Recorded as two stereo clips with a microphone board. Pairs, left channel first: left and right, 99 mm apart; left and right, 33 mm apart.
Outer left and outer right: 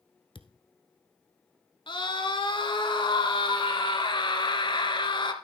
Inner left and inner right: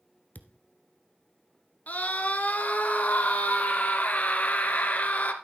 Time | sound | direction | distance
0.3 | a thud | 60° left (ahead or behind) | 1.0 m
1.9 | a scream | 55° left (ahead or behind) | 2.5 m